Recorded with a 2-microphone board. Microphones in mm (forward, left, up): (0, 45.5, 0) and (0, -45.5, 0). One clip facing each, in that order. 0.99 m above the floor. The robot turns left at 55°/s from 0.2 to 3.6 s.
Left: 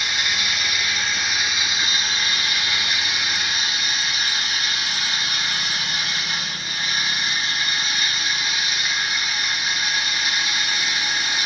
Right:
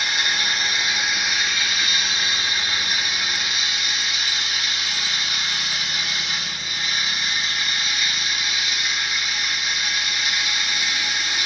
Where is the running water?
120° right, 1.5 m; by 11.5 s 50° left, 1.5 m.